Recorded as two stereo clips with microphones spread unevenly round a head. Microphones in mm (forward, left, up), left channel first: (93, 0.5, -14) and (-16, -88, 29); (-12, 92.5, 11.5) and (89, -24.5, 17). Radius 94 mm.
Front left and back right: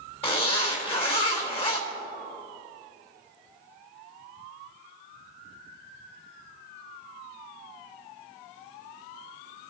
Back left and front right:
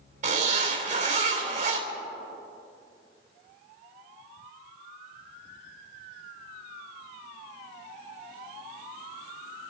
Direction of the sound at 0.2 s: 10° right.